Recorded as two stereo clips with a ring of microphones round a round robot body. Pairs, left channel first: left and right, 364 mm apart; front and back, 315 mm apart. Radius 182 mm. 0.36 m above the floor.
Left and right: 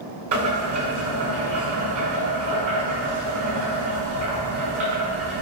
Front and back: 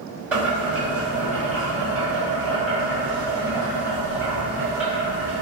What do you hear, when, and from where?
0.3 s boiling: 100° right, 1.2 m